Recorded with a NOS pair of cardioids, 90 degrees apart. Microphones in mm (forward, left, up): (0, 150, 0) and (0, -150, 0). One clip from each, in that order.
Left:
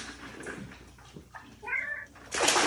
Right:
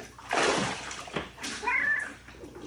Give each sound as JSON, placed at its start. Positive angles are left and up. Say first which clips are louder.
{"t": 1.6, "sound": "a cat meowing", "louder": "right 6 dB", "azimuth_deg": -45, "distance_m": 1.4}